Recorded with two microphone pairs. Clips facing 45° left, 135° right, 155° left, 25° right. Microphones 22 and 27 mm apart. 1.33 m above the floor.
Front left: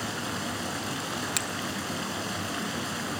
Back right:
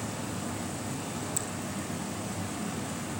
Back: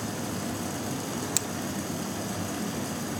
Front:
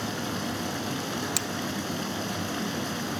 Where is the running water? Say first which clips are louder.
Front left 4 dB, front 2 dB; 25° left, 4 m.